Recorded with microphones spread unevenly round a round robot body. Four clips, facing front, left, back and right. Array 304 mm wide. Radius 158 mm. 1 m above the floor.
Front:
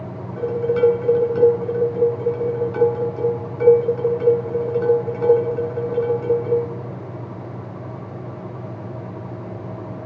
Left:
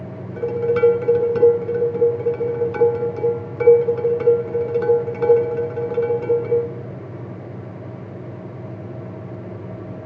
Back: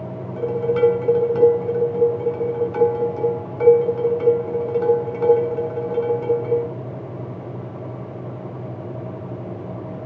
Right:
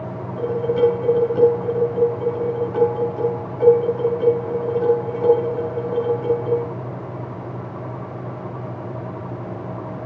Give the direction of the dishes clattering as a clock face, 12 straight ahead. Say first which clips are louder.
Left 1 dB, even; 9 o'clock.